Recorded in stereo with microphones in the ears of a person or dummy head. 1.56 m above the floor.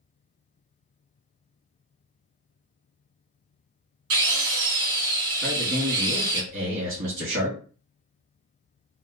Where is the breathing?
No breathing in this recording.